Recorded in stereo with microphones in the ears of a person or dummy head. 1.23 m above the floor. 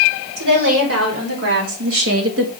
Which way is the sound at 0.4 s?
85° right.